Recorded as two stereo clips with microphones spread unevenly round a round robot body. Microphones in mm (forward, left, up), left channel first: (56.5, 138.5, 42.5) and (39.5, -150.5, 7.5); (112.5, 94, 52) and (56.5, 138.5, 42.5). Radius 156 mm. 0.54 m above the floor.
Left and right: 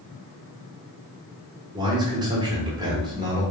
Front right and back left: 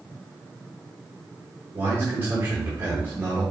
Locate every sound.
1.7 s a man speaking: 160° right, 1.2 m